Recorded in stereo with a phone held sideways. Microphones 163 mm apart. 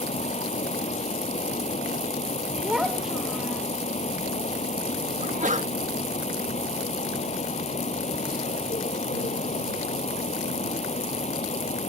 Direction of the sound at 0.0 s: 45° left (ahead or behind).